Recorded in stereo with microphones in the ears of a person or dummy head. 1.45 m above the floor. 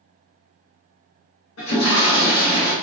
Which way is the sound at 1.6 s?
75° left (ahead or behind).